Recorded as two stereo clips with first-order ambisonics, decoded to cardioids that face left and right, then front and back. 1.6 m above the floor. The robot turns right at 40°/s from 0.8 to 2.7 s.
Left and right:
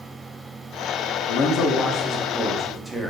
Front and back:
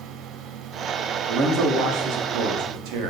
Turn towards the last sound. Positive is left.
turn(degrees=-175)